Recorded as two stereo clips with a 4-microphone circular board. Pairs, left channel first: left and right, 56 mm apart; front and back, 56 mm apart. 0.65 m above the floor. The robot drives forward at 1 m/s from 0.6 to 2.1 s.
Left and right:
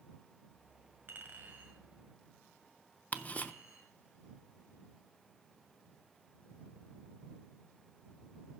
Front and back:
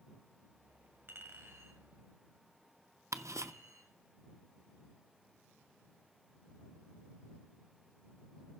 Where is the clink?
140° right, 1.5 m; by 3.9 s 155° right, 2.5 m.